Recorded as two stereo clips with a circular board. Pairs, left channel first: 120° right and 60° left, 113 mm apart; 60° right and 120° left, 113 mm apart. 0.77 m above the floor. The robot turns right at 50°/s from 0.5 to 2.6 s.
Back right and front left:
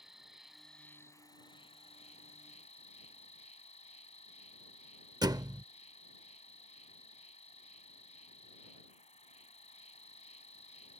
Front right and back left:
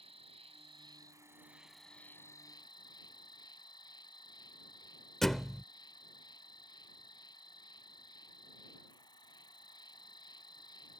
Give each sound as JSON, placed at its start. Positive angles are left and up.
{"t": 0.0, "sound": "an insect", "azimuth_deg": 145}
{"t": 5.2, "sound": "a thud", "azimuth_deg": 25}